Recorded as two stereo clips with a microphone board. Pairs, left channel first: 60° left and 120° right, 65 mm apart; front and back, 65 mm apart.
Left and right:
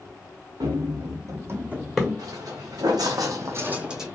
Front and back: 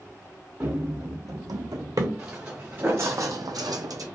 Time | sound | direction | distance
0.6 | running footsteps | 115° right | 1.1 m
2.2 | footsteps | 110° right | 1.2 m